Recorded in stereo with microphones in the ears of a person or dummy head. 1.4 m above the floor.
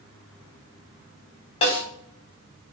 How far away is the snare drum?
About 3.5 m.